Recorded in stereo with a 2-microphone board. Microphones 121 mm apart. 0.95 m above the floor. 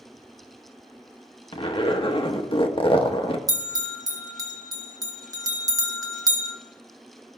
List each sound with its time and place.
1.5 s a zipper: 50° left (ahead or behind), 0.9 m
3.5 s a bell: 30° right (ahead or behind), 1.1 m